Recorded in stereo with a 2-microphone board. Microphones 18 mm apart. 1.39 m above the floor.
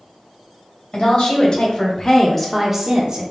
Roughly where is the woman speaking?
Left.